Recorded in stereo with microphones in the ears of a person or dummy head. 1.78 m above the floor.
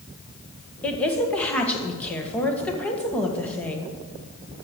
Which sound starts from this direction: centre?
A woman speaking, at 0.8 s.